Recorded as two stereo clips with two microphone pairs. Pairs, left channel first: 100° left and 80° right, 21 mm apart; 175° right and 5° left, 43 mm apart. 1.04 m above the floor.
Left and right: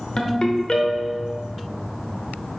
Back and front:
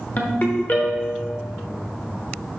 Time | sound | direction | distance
0.2 | a ringtone | 140° left | 1.0 m